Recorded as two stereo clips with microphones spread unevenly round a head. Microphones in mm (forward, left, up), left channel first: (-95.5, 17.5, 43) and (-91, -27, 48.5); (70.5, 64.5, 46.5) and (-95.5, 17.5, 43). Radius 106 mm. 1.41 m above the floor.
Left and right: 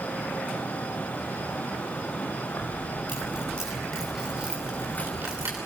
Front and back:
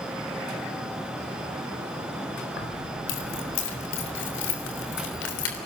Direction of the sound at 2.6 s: 25° left.